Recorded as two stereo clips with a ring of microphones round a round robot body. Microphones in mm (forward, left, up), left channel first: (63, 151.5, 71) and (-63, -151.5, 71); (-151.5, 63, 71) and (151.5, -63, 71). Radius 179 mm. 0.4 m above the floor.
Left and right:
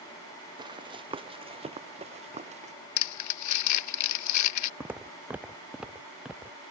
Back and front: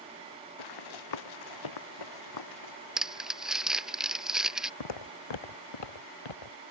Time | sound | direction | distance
0.6 | running footsteps | 170° left | ?
3.0 | crumpling | 65° left | ?
4.8 | footsteps | 165° left | ?